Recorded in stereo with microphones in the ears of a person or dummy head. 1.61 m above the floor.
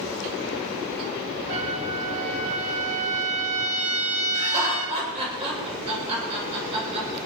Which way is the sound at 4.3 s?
40° right (ahead or behind).